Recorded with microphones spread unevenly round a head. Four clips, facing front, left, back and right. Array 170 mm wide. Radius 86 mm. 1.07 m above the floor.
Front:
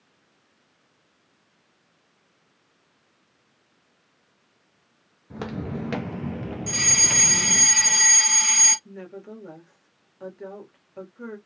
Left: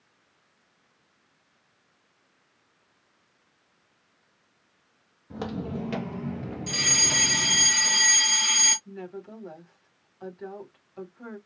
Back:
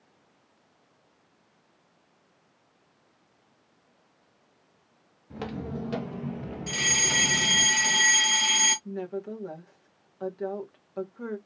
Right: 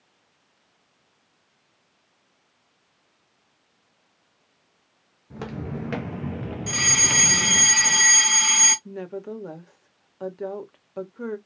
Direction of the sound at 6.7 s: 105° right.